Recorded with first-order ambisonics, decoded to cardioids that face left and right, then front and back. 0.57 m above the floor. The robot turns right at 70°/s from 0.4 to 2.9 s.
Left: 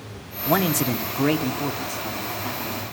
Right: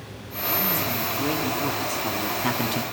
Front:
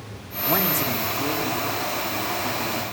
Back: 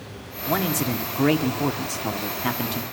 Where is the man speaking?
85° left, 1.4 m; by 2.8 s 110° right, 1.4 m.